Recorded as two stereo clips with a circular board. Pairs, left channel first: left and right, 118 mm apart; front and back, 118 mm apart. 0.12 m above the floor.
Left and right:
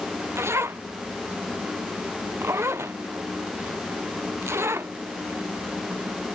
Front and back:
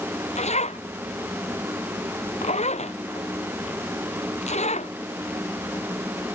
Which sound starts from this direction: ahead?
A zipper, at 0.3 s.